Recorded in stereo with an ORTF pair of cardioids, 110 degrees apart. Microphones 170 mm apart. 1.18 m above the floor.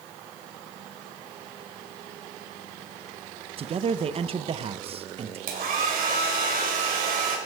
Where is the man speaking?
35° right, 0.8 m.